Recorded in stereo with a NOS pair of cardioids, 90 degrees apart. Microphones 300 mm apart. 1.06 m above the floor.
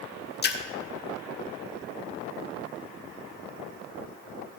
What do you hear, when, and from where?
0.4 s a splash: 35° left, 1.2 m